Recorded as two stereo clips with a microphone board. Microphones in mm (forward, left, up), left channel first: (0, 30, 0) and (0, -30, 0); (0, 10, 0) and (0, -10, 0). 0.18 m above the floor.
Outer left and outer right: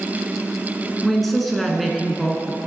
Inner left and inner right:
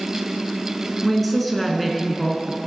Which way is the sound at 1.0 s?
Centre (ahead or behind).